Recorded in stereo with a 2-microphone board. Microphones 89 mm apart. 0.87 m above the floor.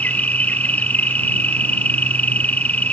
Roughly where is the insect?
Centre.